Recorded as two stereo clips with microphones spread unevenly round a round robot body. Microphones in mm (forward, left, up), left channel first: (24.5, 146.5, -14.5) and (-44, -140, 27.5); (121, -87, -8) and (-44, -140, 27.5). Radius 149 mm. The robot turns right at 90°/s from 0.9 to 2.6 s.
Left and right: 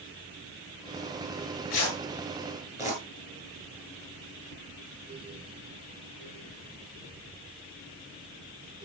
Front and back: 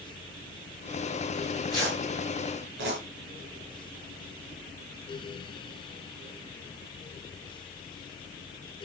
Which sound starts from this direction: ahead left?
Tearing paper, at 1.3 s.